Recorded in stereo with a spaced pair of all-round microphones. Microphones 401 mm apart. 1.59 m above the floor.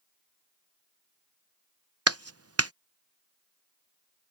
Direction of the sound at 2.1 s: 35° right (ahead or behind).